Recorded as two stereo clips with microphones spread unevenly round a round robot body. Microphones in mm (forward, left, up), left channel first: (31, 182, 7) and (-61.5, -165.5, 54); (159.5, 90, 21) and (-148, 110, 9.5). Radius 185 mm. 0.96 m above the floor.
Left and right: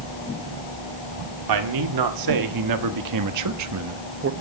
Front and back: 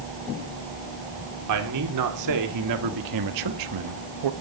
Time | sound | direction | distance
1.5 | a man speaking | 135° right | 2 m